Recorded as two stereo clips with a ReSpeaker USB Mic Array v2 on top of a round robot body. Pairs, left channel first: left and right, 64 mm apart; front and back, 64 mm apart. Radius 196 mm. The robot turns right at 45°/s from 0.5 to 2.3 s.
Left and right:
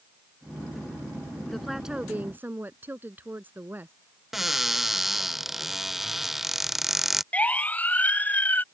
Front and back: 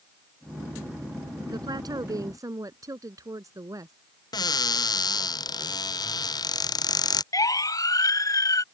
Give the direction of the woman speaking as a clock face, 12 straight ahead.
6 o'clock.